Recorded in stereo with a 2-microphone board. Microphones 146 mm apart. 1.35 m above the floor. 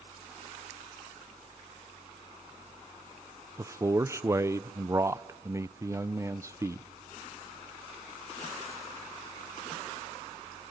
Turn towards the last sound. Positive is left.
turn(degrees=-20)  # may be behind; listen again after turning